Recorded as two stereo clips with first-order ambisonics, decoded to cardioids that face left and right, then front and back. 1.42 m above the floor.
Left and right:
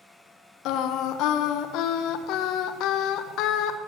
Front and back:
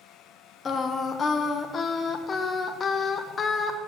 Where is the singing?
65° left, 0.5 m.